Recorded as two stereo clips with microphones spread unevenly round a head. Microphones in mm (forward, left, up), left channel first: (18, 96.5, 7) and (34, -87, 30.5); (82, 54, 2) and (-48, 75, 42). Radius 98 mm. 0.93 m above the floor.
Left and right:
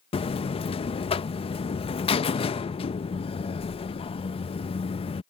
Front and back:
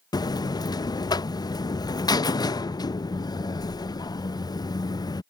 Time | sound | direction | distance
0.1 | a buzzer | 40° left | ?